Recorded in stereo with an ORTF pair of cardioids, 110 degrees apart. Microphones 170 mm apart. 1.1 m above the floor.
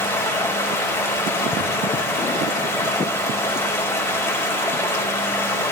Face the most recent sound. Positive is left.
turn(degrees=15)